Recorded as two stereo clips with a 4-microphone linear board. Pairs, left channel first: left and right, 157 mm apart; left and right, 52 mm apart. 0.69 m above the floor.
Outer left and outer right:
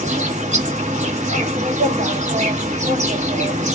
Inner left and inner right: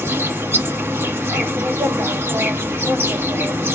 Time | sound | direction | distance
0.0 | an insect | 50° right (ahead or behind) | 1.2 m